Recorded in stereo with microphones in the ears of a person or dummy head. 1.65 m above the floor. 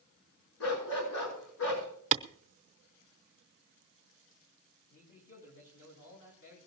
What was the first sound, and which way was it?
A dog barking, 75° left (ahead or behind).